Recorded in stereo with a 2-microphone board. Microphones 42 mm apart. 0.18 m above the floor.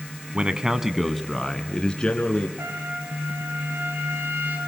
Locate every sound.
0.3 s a man speaking: 25° right (ahead or behind), 1.2 m; by 2.5 s 25° left (ahead or behind), 1.9 m
2.6 s a trumpet: 70° right (ahead or behind), 4.5 m